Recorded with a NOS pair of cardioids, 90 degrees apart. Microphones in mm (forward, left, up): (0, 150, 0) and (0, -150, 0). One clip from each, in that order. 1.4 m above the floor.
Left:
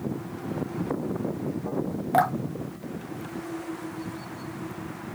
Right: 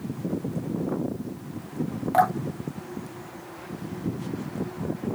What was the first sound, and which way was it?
Dripping, 15° left.